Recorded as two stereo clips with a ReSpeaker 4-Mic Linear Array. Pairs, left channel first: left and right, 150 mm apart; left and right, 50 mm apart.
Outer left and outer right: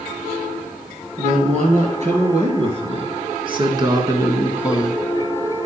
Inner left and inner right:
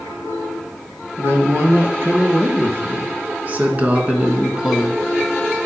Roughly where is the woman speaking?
Right.